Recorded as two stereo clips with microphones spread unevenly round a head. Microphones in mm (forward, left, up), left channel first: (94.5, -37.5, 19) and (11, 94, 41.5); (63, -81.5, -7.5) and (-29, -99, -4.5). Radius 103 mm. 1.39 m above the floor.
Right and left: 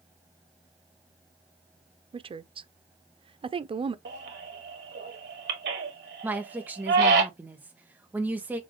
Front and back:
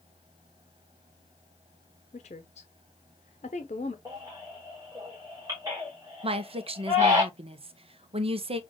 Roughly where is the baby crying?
Behind left.